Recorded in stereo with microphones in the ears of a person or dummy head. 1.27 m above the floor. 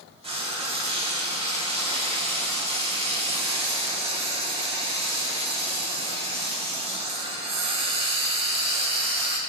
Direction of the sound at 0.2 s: 30° right (ahead or behind).